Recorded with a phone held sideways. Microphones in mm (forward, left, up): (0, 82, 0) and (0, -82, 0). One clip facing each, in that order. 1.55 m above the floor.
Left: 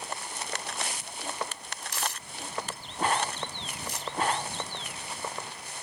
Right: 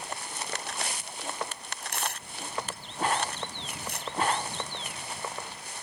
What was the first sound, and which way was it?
Tearing paper, 60° right (ahead or behind).